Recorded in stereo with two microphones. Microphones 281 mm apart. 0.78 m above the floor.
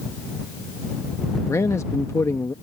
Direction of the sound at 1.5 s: 10° left (ahead or behind).